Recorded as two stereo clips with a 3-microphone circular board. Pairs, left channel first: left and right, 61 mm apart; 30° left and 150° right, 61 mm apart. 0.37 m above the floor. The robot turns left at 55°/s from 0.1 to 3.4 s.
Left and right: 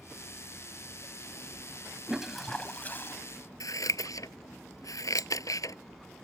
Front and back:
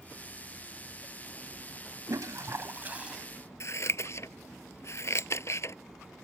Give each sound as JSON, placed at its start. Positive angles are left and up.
{"t": 2.1, "sound": "a toilet flushing", "azimuth_deg": -165}
{"t": 3.6, "sound": "scissors", "azimuth_deg": 70}